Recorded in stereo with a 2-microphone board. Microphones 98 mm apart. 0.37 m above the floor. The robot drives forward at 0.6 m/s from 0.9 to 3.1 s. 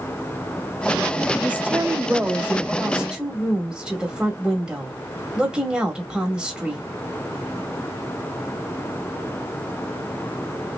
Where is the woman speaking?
15° right (ahead or behind), 0.8 m; by 6.8 s 10° right (ahead or behind), 1.4 m.